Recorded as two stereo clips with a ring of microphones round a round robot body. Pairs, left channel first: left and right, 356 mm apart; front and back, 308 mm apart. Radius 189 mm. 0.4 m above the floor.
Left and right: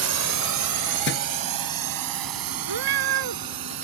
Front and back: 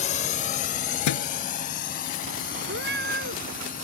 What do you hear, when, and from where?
0.0 s a drone: 60° right; by 3.9 s 70° right
1.1 s a thud: 30° left
2.7 s a cat meowing: 115° right